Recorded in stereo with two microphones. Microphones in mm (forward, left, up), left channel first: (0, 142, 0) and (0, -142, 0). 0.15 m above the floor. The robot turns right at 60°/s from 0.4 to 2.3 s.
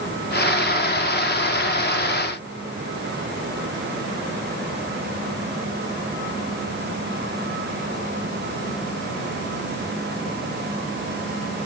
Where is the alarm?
No alarm in this recording.